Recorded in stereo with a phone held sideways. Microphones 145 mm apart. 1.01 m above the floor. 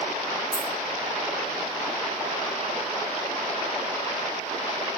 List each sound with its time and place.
0.5 s a dropped coin: 65° left (ahead or behind), 2.0 m